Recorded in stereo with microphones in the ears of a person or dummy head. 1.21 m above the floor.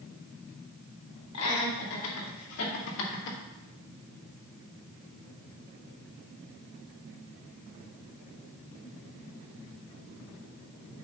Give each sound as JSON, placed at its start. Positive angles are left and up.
{"t": 1.3, "sound": "laughter", "side_deg": 85, "distance_m": 3.0}